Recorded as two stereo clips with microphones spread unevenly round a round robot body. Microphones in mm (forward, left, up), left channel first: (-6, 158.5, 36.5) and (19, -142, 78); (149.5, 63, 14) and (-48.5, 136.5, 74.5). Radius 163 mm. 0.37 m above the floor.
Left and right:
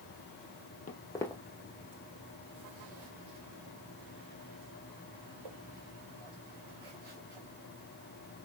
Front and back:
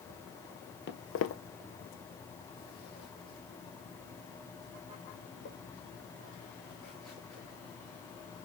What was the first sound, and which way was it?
Footsteps, 25° left.